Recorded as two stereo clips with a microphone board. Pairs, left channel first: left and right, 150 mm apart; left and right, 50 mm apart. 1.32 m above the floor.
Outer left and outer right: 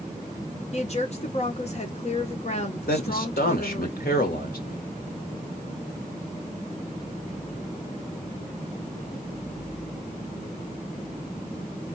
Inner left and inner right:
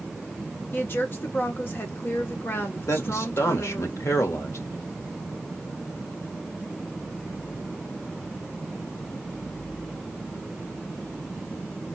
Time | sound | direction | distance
0.7 | a woman speaking | 45° left (ahead or behind) | 1.5 m
2.9 | a man speaking | 85° left | 1.7 m